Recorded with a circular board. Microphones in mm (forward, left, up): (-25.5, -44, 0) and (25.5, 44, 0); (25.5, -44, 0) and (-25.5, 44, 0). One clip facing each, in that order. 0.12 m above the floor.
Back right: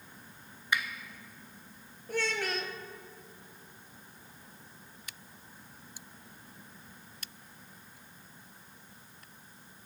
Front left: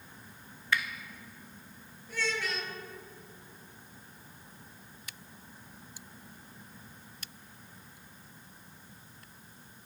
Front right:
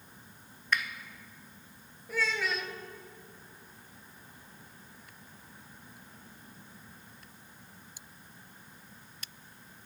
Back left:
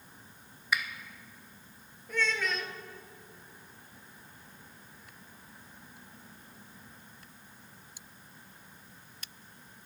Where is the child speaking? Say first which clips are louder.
Back right 2 dB, even; 145° right, 1.1 m.